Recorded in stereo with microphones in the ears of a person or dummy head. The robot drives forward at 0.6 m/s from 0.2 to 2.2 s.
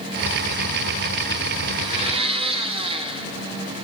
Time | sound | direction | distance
1.7 | a blender | 25° right (ahead or behind) | 2.5 m